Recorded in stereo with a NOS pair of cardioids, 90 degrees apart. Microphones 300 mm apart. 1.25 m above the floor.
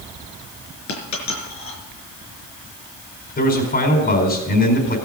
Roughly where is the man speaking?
Ahead left.